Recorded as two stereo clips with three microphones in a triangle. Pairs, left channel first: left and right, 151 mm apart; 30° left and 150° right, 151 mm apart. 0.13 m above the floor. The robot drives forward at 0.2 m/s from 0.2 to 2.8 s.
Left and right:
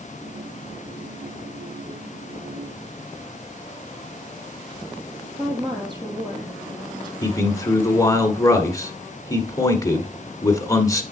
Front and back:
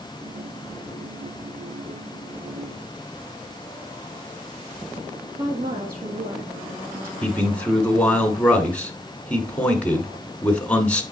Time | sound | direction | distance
5.4 | a woman speaking | 150° right | 4.5 m
7.2 | a man speaking | 95° left | 1.2 m